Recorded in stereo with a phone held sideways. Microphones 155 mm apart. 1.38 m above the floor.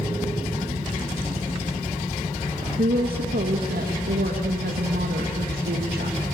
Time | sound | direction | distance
2.8 | a woman speaking | 85° right | 1.8 m